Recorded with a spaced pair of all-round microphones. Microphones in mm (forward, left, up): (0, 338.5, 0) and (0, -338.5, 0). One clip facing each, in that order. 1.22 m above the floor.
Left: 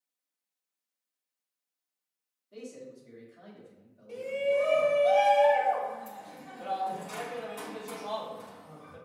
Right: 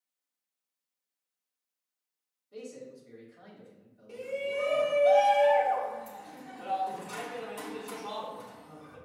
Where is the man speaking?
10° left (ahead or behind), 1.6 m.